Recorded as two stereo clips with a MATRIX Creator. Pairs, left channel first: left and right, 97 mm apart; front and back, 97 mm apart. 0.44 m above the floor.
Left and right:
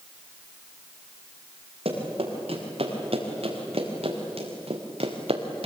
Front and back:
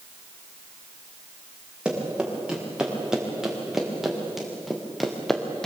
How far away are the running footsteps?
About 6.5 m.